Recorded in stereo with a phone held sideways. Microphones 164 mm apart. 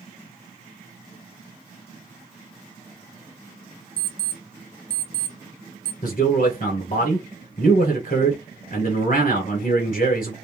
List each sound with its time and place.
4.0 s an alarm clock: 55° right (ahead or behind), 0.6 m
6.0 s a man speaking: 50° left (ahead or behind), 1.2 m